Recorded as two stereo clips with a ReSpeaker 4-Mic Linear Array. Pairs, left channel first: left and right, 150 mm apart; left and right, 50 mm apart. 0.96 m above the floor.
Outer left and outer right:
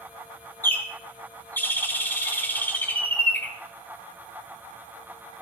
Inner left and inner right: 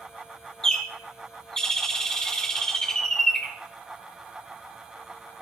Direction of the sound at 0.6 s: 15° left (ahead or behind).